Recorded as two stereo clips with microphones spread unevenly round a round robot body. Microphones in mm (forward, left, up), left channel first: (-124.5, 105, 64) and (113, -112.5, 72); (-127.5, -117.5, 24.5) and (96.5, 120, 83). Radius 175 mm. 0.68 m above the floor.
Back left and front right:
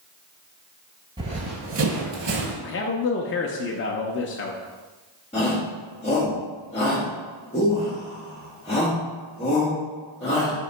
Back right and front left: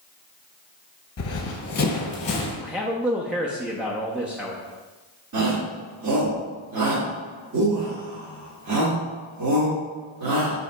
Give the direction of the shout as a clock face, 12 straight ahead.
9 o'clock.